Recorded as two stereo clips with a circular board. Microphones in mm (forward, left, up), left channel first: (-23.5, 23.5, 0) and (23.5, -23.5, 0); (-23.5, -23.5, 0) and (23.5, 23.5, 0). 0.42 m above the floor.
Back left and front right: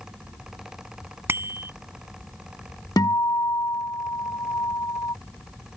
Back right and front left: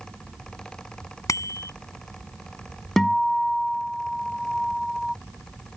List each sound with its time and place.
1.3 s a bicycle bell: 100° right
3.0 s a guitar: 145° left